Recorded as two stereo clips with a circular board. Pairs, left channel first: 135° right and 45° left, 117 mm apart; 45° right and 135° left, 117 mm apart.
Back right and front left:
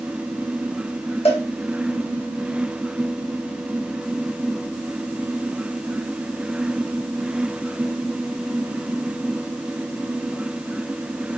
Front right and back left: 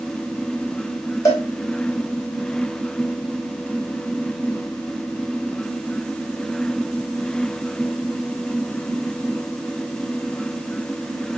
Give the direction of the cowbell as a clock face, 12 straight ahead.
4 o'clock.